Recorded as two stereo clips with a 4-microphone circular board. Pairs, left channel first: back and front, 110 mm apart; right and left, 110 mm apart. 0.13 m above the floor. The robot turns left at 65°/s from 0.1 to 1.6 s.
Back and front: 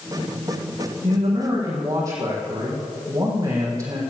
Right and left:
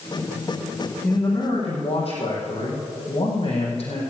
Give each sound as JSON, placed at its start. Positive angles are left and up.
{"t": 1.0, "sound": "a man speaking", "azimuth_deg": -25, "distance_m": 4.5}